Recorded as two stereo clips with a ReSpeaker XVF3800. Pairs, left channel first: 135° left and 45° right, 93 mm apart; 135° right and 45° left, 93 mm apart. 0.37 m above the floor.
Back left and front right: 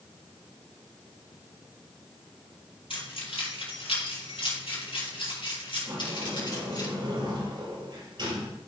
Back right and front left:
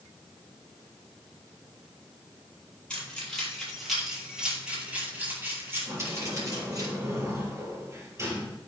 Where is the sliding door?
15° right, 5.5 m.